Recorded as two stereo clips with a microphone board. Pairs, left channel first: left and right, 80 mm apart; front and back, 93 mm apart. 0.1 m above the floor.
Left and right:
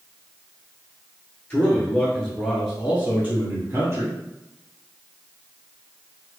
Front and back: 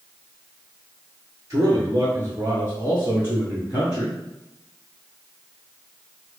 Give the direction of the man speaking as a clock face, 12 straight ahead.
7 o'clock.